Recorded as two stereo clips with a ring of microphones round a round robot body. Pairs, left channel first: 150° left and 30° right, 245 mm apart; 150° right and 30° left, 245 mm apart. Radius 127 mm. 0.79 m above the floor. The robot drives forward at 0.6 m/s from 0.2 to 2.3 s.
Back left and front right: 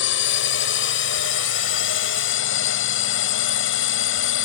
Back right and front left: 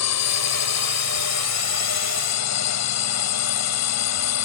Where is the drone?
170° right.